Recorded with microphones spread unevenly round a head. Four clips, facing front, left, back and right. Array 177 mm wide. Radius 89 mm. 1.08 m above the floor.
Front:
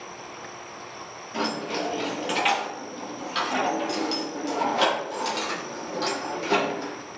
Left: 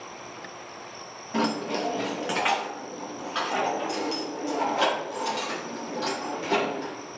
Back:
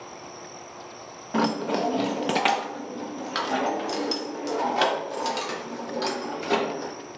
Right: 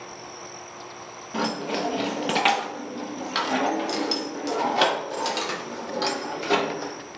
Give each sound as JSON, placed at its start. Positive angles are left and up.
{"t": 1.3, "sound": "keys jangling", "azimuth_deg": 170, "distance_m": 0.9}